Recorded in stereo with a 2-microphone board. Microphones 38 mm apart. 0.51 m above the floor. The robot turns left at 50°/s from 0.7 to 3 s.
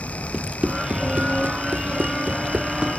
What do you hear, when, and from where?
0.3 s running footsteps: 25° right (ahead or behind); by 2.9 s 20° right (ahead or behind)